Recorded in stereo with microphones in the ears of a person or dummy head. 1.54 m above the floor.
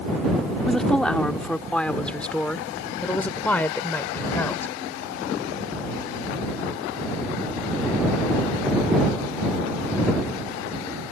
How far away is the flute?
I don't hear a flute.